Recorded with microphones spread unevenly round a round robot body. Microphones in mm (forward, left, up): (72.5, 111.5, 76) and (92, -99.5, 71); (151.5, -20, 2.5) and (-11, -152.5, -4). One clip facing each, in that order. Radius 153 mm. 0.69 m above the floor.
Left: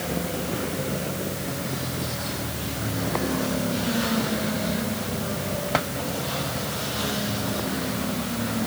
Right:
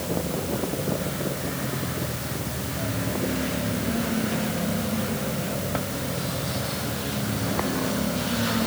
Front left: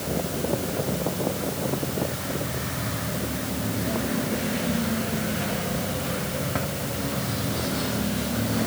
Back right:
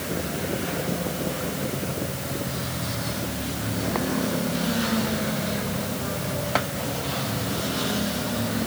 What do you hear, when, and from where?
Only background noise.